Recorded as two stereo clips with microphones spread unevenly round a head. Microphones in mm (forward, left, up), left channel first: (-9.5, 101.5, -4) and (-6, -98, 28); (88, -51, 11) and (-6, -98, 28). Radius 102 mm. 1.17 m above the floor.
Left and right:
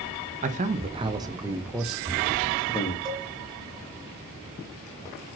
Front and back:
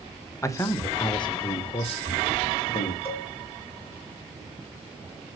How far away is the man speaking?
About 1.3 m.